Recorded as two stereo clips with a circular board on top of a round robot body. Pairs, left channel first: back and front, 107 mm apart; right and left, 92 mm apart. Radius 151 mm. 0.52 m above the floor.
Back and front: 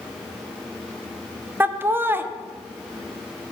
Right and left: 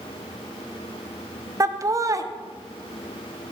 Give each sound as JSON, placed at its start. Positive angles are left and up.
{"t": 1.6, "sound": "laughter", "azimuth_deg": 60, "distance_m": 1.0}